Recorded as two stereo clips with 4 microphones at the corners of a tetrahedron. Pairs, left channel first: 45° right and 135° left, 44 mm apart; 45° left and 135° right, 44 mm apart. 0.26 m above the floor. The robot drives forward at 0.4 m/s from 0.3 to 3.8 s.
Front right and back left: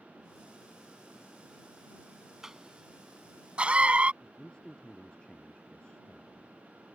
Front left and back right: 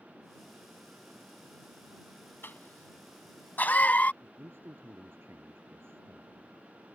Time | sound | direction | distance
2.4 | a cough | 60° left | ?
4.2 | a man speaking | 115° right | ?